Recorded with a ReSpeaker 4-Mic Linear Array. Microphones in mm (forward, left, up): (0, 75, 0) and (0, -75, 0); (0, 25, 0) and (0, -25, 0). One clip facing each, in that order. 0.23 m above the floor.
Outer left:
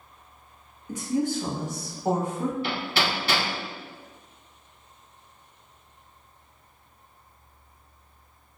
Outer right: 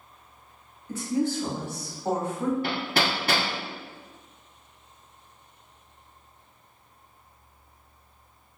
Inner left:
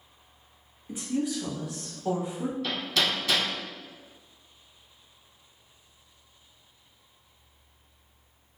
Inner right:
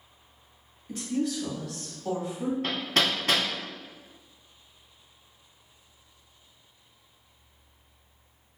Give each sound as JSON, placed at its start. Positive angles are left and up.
{"t": 0.9, "sound": "a woman speaking", "side_deg": 15, "distance_m": 0.9}
{"t": 2.6, "sound": "hammering", "side_deg": -45, "distance_m": 0.8}